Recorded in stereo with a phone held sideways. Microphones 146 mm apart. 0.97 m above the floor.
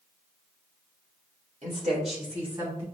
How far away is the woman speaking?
About 1.9 m.